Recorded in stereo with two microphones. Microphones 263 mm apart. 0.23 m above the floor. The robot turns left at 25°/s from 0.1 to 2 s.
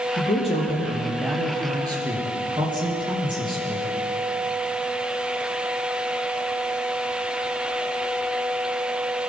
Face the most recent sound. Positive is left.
turn(degrees=-20)